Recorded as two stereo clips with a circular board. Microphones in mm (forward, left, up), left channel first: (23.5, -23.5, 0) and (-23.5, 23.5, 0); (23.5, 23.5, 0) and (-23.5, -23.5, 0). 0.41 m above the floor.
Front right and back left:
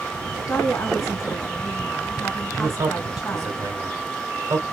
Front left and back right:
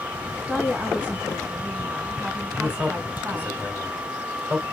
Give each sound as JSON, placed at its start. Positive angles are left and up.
{"t": 0.5, "sound": "a woman speaking", "azimuth_deg": -75, "distance_m": 2.0}
{"t": 2.6, "sound": "a man speaking", "azimuth_deg": 170, "distance_m": 2.0}